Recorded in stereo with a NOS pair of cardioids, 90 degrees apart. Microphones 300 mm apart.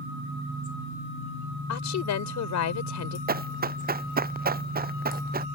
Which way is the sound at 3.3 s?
30° right.